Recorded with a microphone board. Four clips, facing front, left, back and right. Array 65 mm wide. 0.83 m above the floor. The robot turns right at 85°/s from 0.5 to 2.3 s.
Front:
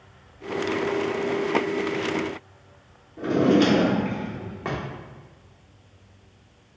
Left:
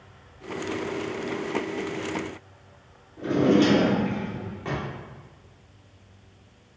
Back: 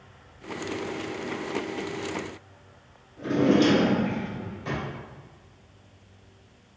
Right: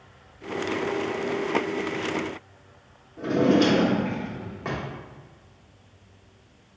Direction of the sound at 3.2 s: 15° right.